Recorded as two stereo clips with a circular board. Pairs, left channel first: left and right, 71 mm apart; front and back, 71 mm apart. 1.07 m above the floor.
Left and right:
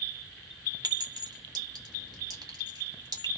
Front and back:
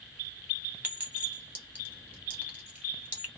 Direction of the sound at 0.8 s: 115° right.